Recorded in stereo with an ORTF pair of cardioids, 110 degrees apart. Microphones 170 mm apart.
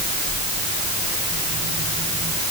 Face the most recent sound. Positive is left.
No sound to turn to.